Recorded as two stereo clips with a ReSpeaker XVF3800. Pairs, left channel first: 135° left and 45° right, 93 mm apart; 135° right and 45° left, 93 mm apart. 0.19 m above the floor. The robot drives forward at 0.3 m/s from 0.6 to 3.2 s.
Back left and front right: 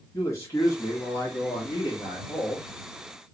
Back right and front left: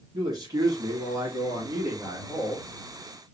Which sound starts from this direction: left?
A man speaking, at 0.1 s.